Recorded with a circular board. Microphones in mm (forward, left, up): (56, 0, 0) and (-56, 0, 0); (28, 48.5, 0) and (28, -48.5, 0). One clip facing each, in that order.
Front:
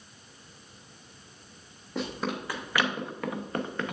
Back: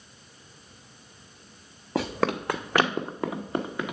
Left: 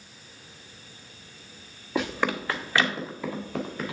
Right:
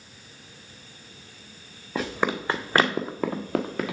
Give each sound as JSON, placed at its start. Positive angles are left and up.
{"t": 1.9, "sound": "running footsteps", "azimuth_deg": 180, "distance_m": 0.8}